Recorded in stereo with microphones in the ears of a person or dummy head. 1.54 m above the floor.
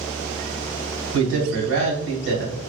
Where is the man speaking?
70° right (ahead or behind), 1.2 m.